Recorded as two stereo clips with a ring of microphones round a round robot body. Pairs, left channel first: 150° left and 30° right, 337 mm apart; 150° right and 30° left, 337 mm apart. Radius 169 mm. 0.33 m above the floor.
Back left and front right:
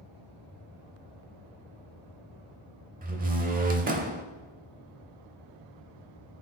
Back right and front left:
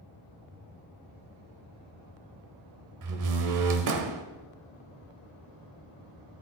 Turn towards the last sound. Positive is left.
turn(degrees=30)